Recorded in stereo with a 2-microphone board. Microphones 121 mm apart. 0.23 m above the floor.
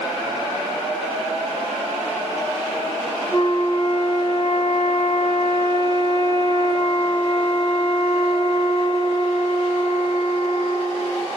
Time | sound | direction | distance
3.3 | a flute | 45° left (ahead or behind) | 2 m